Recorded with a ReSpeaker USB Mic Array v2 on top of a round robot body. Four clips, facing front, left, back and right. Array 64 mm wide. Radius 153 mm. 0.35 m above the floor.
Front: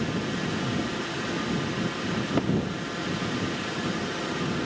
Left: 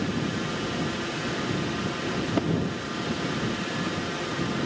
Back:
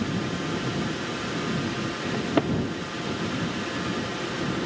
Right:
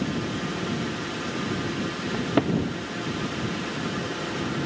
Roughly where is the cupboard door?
Behind right.